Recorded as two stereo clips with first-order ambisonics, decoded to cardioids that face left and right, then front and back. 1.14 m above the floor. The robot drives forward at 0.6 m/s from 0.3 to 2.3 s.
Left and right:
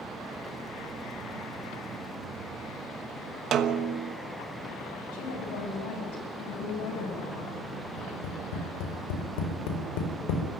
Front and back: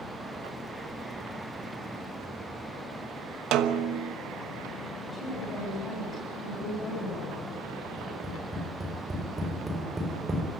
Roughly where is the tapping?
Left.